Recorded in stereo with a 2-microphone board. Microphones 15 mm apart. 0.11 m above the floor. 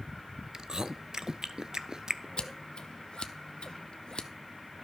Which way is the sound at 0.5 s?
40° right (ahead or behind).